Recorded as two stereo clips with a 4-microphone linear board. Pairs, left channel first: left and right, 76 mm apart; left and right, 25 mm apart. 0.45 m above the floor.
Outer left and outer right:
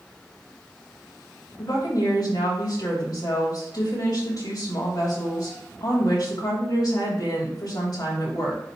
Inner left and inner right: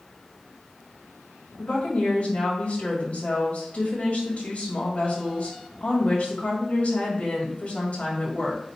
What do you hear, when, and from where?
1.6 s a woman speaking: 55° left (ahead or behind), 2.5 m